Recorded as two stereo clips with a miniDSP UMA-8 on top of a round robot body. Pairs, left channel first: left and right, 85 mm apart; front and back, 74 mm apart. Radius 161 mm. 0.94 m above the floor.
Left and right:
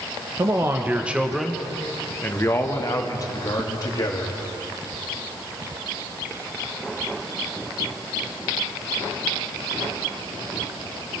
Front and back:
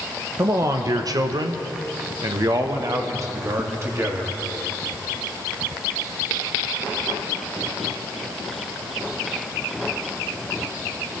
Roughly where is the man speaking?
Behind right.